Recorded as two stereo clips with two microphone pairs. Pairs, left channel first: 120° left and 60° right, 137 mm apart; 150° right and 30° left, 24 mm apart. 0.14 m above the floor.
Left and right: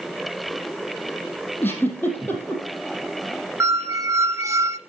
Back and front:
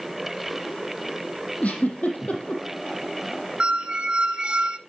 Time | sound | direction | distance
1.6 | a giggle | 165° right | 3.5 m
3.6 | a squeak | straight ahead | 0.8 m